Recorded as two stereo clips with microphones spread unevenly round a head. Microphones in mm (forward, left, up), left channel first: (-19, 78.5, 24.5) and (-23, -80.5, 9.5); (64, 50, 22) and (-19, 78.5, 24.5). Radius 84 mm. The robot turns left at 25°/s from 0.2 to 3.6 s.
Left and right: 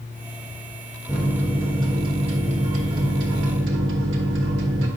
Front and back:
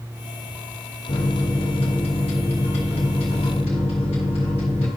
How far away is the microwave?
About 1.4 m.